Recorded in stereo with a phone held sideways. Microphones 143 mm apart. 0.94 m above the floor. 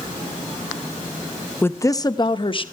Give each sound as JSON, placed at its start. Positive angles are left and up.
{"t": 1.6, "sound": "a woman speaking", "side_deg": 15, "distance_m": 0.7}